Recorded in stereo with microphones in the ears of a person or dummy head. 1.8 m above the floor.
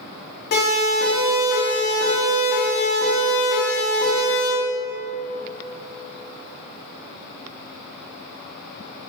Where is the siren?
55° left (ahead or behind), 5.5 m; by 4.5 s 25° left (ahead or behind), 6.5 m.